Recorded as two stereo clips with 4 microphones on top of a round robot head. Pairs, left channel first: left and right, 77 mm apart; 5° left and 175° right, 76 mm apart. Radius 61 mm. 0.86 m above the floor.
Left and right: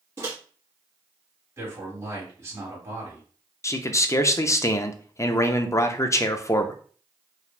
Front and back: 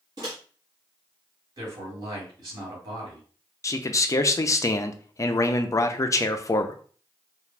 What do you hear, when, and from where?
0.2 s a microwave: 140° right, 1.3 m
1.6 s a man speaking: 150° right, 2.0 m
3.6 s a man speaking: 45° left, 0.5 m